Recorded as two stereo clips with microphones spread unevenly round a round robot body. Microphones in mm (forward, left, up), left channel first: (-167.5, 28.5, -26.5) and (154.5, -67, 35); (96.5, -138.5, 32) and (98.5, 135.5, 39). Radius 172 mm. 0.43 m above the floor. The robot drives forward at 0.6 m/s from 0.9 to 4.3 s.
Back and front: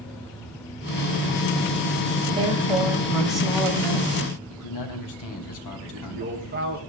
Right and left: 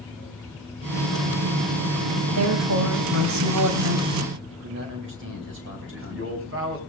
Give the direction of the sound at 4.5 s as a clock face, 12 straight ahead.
7 o'clock.